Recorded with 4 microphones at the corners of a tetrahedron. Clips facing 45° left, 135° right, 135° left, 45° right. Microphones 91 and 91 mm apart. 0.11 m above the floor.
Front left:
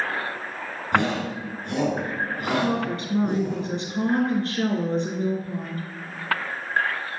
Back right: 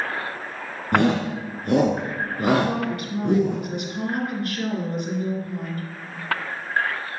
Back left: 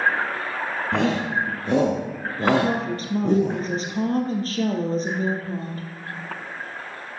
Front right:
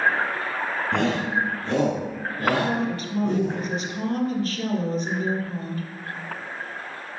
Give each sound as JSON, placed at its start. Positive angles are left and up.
{"t": 0.9, "sound": "a shout", "azimuth_deg": -140, "distance_m": 2.0}
{"t": 2.6, "sound": "a woman speaking", "azimuth_deg": 95, "distance_m": 2.5}